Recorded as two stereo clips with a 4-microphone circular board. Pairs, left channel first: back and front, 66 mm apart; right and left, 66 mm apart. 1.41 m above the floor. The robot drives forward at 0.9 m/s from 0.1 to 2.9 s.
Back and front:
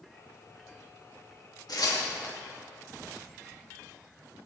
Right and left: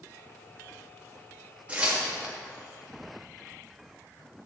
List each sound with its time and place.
1.7 s tearing paper: 165° left, 2.5 m